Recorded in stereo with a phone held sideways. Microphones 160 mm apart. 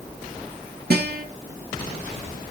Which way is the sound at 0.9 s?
80° right.